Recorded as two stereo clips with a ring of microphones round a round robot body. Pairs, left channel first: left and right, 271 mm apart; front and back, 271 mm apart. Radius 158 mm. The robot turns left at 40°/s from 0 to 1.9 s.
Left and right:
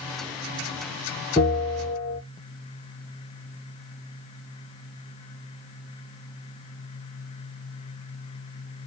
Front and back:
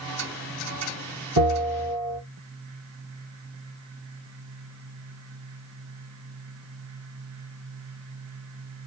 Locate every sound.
1.4 s a bell: 165° right, 2.5 m; by 2.2 s 170° left, 2.5 m